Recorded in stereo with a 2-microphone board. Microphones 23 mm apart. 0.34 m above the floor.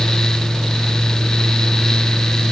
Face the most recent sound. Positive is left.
No sound to turn to.